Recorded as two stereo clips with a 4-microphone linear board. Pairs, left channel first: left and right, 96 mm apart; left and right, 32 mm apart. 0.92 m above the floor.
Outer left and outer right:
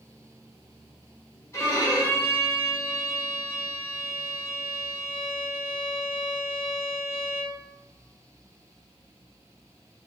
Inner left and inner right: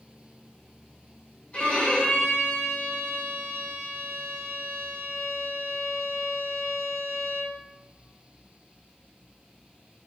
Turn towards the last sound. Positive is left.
turn(degrees=30)  # may be behind; listen again after turning